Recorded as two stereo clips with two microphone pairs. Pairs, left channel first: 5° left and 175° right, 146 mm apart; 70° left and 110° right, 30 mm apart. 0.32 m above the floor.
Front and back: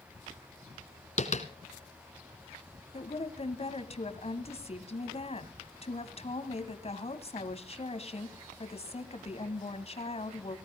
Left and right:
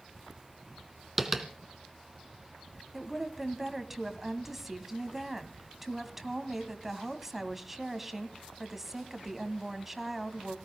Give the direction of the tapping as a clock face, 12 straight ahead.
1 o'clock.